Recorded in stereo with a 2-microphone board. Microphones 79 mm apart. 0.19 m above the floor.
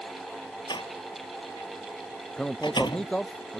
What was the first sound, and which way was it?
A door slam, 75° left (ahead or behind).